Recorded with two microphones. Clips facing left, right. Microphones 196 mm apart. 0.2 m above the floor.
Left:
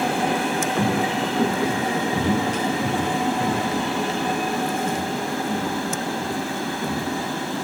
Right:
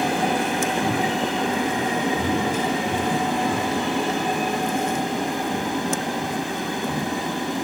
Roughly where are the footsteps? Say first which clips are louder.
Left 1 dB; left.